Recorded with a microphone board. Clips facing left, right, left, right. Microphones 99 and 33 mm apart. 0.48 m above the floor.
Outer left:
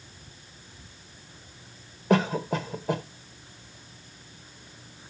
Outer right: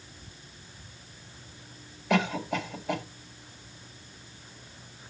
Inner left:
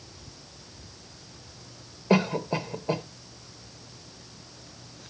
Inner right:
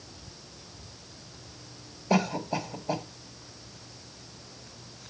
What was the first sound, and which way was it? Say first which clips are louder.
A cough: outer left 3 dB, inner left 3 dB; 40° left (ahead or behind).